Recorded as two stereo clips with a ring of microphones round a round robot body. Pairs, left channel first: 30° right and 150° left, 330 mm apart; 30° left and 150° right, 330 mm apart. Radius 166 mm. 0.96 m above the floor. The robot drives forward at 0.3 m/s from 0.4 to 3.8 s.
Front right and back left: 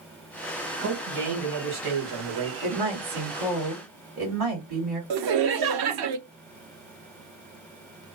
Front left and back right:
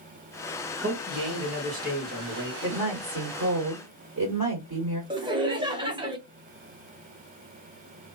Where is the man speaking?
140° left, 1.3 m; by 2.5 s 150° left, 1.7 m.